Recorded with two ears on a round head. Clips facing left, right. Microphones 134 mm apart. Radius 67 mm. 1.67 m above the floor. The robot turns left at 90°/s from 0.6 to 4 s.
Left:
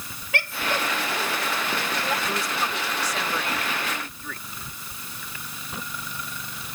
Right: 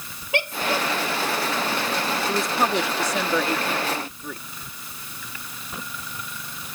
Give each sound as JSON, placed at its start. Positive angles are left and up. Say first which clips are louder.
{"t": 0.3, "sound": "a woman speaking", "louder": "right 3 dB", "side_deg": -20}
{"t": 2.3, "sound": "a woman speaking", "louder": "right 5 dB", "azimuth_deg": -5}